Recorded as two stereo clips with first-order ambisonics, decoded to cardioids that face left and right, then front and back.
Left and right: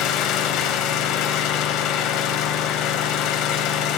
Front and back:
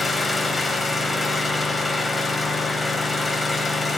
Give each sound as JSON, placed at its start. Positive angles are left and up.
{"t": 0.0, "sound": "an engine running", "azimuth_deg": 80, "distance_m": 1.2}